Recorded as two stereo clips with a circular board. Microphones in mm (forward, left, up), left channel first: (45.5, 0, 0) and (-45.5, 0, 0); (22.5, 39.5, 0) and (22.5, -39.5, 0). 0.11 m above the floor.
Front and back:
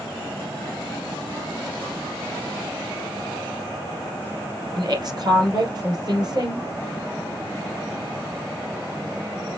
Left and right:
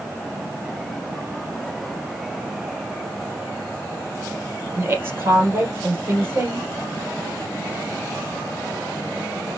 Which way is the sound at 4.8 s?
145° right.